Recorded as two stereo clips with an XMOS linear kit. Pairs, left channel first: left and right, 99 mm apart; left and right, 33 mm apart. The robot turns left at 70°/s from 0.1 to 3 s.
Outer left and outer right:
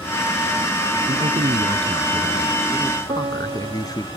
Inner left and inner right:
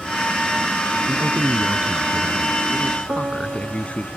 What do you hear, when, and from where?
1.1 s a man speaking: 85° right; by 4.1 s 140° left
3.1 s a piano: 80° right